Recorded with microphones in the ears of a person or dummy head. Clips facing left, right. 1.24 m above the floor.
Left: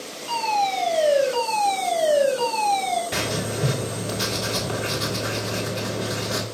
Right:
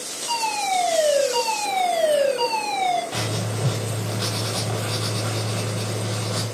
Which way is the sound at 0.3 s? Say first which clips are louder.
Left 1 dB; 25° right (ahead or behind).